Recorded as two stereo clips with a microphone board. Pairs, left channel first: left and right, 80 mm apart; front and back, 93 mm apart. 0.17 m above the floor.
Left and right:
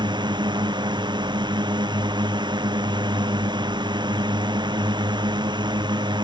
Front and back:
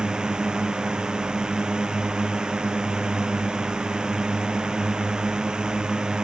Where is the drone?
100° right.